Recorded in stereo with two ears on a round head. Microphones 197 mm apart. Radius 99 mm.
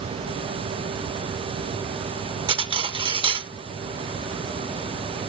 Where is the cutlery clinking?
25° right (ahead or behind), 0.7 m.